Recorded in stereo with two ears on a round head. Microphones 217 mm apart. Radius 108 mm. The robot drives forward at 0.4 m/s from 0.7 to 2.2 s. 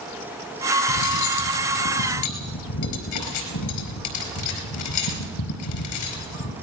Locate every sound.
0.9 s cutlery clinking: 80° left, 4.5 m; by 6.5 s 85° left, 4 m